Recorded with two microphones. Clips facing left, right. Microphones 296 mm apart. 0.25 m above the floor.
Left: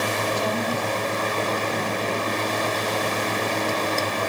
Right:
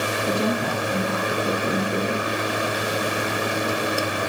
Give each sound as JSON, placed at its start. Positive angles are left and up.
{"t": 0.3, "sound": "a woman speaking", "side_deg": -60, "distance_m": 5.5}